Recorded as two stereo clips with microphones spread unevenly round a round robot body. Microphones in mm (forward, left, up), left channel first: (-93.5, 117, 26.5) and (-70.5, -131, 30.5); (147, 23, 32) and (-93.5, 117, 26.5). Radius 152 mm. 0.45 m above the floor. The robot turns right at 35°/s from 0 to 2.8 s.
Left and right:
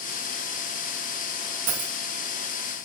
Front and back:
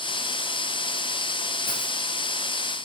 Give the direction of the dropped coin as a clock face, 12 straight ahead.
3 o'clock.